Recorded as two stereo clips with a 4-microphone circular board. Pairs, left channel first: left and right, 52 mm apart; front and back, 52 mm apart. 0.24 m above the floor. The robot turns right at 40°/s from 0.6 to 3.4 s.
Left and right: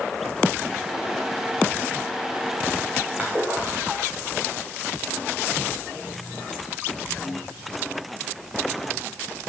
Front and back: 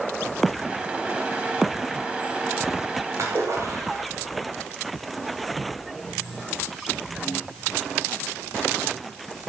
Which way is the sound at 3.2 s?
155° right.